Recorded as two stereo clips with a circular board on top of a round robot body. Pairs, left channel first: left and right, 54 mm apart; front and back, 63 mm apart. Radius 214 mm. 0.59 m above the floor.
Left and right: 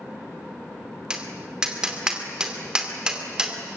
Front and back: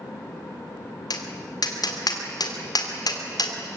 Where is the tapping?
15° right, 2.5 m.